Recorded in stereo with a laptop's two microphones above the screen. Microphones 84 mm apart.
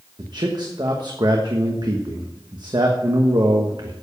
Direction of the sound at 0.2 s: 55° right (ahead or behind).